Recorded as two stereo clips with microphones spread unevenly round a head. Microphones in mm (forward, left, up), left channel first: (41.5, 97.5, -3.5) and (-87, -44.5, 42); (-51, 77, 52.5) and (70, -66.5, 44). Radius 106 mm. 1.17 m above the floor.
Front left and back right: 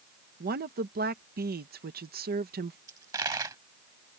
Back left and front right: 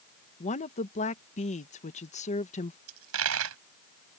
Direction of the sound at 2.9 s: 65° right.